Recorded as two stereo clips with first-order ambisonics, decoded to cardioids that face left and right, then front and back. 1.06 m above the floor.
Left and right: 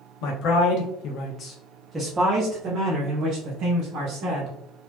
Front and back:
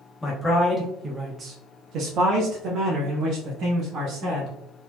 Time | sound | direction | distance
0.2 | a man speaking | 80° left | 1.0 m